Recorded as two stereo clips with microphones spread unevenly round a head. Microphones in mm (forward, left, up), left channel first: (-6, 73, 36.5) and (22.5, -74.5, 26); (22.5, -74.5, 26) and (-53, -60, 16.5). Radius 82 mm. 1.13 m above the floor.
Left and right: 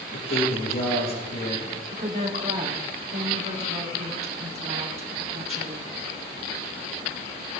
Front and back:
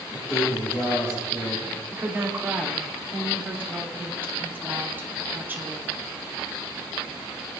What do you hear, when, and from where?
0.1 s a man speaking: 70° left, 6.5 m
1.9 s a woman speaking: 130° right, 3.5 m